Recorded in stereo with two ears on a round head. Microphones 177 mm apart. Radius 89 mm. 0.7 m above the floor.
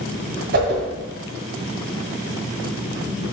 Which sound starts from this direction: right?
A whoosh, at 0.5 s.